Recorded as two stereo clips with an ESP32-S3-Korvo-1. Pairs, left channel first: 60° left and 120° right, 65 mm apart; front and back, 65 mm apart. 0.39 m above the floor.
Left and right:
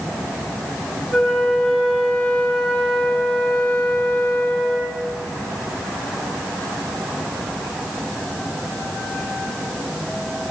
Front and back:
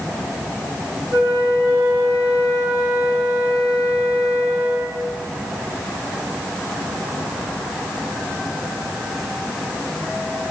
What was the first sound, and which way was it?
A flute, 130° left.